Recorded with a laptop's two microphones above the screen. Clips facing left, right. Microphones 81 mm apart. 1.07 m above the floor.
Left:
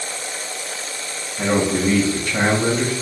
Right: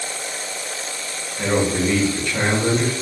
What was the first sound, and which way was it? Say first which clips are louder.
A man speaking: left 1 dB; 45° left (ahead or behind).